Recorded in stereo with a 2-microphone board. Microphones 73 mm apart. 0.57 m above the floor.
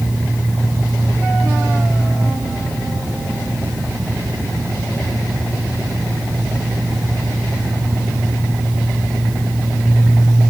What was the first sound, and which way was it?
Only background noise.